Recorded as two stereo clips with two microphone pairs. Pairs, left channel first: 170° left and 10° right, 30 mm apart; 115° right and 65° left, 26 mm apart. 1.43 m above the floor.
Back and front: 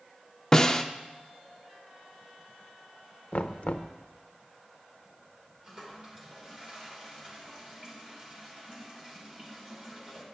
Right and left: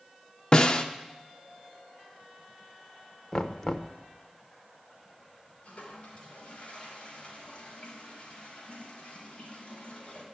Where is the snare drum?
130° right, 0.7 m.